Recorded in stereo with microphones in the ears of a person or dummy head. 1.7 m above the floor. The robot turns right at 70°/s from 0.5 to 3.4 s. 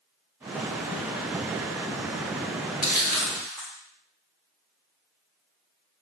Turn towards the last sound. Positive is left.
turn(degrees=5)  # may be behind; listen again after turning